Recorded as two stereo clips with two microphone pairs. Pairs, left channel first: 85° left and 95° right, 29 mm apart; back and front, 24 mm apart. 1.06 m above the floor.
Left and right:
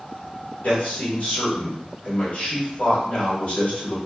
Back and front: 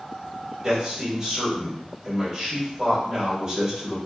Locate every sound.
0.6 s a man speaking: 60° left, 1.9 m